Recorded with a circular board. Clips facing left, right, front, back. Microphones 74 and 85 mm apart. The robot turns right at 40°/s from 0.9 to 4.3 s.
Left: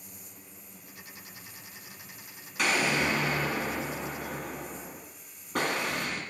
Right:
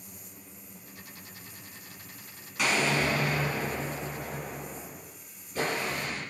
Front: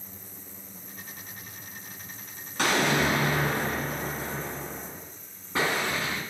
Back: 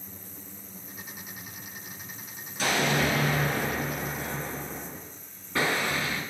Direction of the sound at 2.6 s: Straight ahead.